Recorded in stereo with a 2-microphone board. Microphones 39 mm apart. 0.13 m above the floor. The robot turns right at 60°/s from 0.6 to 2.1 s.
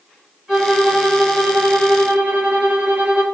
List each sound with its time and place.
0.5 s a violin: 155° right, 1.5 m; by 3.2 s 65° right, 1.5 m